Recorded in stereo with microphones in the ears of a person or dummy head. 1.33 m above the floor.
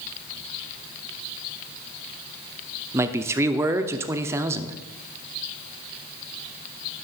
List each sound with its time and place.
2.9 s a man speaking: 15° right (ahead or behind), 0.6 m